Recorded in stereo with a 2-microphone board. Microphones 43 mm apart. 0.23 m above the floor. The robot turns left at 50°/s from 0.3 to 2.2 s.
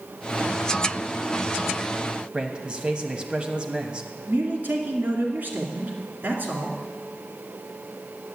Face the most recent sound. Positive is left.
turn(degrees=-45)  # may be behind; listen again after turning